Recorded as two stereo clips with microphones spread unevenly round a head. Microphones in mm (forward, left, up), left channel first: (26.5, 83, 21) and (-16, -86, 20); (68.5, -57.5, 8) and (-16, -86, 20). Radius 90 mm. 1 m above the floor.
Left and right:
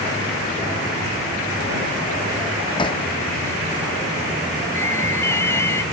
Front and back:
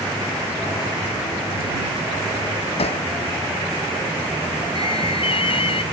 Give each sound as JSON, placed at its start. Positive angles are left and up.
{"t": 2.8, "sound": "hammering", "azimuth_deg": 10}
{"t": 4.8, "sound": "an alarm", "azimuth_deg": 0}